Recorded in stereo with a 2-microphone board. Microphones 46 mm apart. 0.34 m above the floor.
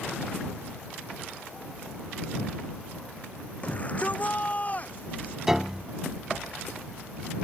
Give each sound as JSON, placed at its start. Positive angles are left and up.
{"t": 3.6, "sound": "a shout", "side_deg": 30}
{"t": 5.5, "sound": "a piano", "side_deg": -10}